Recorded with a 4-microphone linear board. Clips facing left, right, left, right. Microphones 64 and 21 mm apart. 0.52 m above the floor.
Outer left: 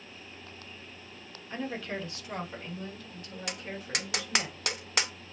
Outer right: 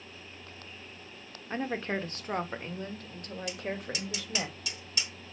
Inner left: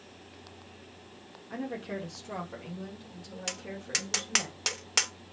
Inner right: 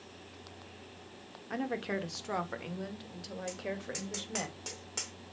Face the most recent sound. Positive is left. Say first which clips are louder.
# outer right 1 dB, inner left 5 dB
turn(degrees=65)  # may be behind; listen again after turning